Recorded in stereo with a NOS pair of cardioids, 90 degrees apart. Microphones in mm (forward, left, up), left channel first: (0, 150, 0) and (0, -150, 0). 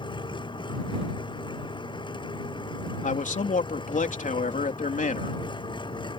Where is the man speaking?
25° left.